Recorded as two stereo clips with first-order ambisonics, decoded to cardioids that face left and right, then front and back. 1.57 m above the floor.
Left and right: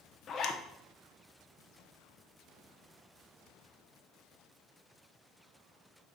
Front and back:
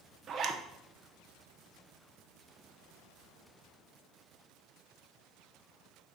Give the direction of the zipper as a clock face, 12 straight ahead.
7 o'clock.